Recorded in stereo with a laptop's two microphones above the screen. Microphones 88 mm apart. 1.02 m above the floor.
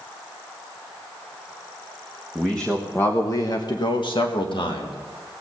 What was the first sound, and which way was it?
A man speaking, 5° left (ahead or behind).